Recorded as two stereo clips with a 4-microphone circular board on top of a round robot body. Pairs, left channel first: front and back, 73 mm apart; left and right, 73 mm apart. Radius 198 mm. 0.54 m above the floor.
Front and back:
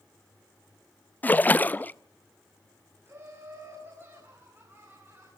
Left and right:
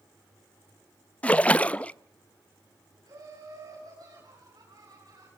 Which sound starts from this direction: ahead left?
A splash, at 1.2 s.